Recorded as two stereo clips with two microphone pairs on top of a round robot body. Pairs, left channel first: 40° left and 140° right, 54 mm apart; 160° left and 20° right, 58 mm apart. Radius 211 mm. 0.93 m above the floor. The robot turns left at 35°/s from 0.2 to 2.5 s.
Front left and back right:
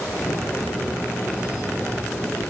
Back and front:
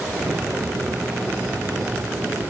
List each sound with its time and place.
Only background noise.